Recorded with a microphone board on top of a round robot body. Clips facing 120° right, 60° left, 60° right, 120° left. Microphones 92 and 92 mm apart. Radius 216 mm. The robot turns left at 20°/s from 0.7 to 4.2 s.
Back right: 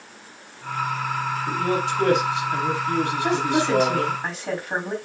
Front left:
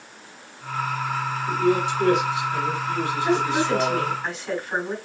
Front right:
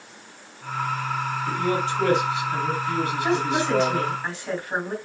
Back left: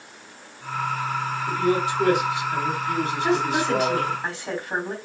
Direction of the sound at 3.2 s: 150° right.